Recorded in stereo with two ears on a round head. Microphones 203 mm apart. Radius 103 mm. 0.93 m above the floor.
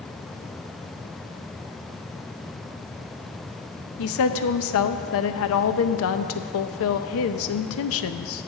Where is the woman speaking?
65° left (ahead or behind), 0.6 m.